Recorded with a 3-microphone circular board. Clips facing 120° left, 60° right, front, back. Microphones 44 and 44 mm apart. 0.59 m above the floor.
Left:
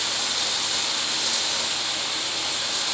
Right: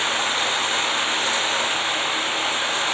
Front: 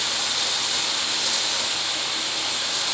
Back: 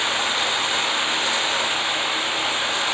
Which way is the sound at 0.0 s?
120° right.